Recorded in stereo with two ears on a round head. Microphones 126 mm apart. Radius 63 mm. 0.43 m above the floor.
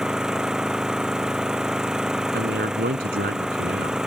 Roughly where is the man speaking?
Right.